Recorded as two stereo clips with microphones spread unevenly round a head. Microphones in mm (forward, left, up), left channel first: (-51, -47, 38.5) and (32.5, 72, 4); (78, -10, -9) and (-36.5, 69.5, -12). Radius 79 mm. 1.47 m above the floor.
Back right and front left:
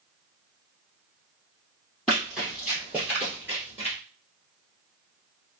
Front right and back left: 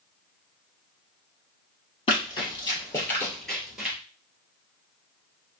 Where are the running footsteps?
50° right, 1.8 m; by 4.0 s 125° left, 1.4 m.